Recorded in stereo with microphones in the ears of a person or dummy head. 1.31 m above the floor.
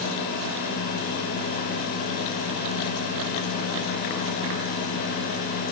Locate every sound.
Only background noise.